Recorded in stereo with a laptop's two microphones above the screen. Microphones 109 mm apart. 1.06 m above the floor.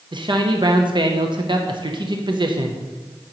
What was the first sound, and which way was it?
A man speaking, 45° right (ahead or behind).